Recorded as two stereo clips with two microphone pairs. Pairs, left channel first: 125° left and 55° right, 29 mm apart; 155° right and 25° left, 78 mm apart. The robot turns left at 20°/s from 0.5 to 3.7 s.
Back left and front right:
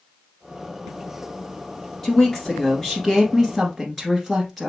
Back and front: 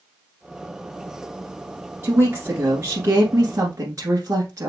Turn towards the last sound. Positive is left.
turn(degrees=40)